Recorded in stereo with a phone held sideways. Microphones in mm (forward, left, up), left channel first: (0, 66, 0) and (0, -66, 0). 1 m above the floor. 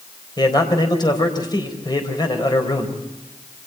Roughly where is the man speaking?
Left.